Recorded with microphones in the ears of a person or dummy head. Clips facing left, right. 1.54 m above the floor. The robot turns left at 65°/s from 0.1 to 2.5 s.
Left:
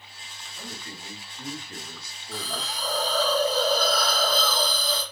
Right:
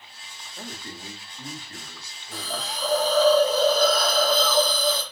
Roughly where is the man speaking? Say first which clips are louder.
Right 3 dB; behind right.